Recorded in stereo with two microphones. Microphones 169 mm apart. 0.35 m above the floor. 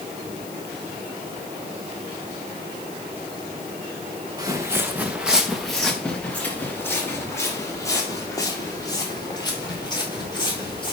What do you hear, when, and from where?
4.4 s footsteps: 20° right (ahead or behind), 2 m; by 10.9 s 25° left (ahead or behind), 7.5 m